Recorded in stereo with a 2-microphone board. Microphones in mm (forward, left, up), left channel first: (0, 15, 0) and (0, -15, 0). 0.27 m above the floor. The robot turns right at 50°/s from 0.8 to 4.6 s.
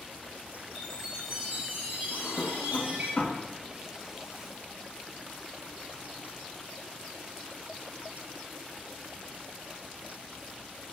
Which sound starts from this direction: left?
A drawer, at 2.1 s.